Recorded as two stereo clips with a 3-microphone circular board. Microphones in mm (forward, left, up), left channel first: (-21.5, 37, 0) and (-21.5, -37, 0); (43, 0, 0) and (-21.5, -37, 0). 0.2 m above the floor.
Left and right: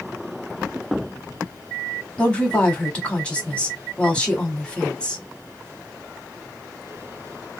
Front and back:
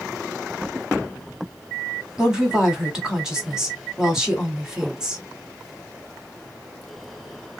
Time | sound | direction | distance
2.2 | a woman speaking | 140° left | 1.1 m